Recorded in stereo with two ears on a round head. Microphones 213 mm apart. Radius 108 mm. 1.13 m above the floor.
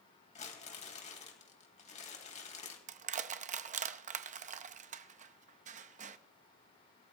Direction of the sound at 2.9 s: 35° right (ahead or behind).